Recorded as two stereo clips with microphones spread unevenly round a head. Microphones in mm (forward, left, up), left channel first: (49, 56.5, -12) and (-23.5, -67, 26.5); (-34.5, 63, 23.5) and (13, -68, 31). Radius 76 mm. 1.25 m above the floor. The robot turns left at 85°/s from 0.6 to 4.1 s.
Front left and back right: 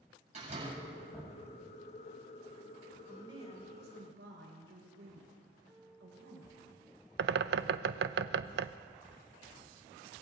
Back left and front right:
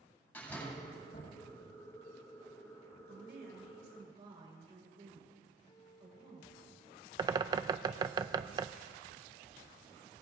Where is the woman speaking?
35° right, 4.5 m; by 6.5 s 125° right, 4.5 m.